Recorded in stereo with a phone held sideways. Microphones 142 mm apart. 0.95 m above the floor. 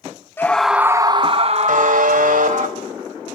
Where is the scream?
15° left (ahead or behind), 0.6 m; by 2.7 s 60° right (ahead or behind), 1.5 m.